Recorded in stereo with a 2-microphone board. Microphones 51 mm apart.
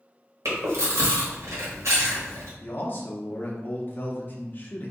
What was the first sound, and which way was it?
Chewing, 75° right (ahead or behind).